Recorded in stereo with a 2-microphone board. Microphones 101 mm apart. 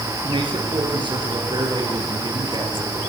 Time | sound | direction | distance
0.2 | a man speaking | 55° right (ahead or behind) | 6 m